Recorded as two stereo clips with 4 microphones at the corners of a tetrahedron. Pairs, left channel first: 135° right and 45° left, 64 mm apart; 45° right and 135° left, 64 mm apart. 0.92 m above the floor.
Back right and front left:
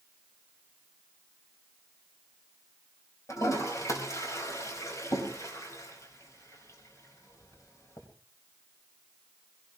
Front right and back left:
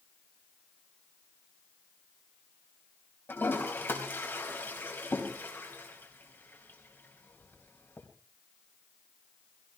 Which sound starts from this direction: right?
A toilet flushing, at 3.3 s.